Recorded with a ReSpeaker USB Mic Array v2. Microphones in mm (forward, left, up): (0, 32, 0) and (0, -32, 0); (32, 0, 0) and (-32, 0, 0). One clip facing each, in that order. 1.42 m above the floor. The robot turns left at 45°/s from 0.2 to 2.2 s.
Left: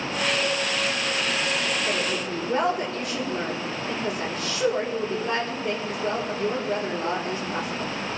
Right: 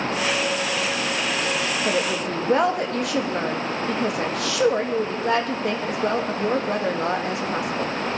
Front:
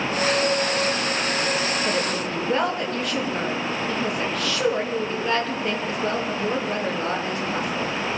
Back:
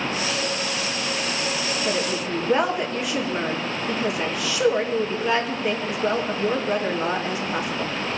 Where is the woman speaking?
85° right, 2.5 m; by 7.9 s 100° right, 2.5 m.